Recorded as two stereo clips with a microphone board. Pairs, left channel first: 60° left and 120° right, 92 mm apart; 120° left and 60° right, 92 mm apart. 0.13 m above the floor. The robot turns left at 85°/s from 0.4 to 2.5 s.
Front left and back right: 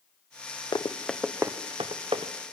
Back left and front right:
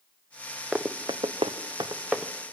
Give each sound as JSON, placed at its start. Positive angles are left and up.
{"t": 0.7, "sound": "running footsteps", "azimuth_deg": 20, "distance_m": 1.2}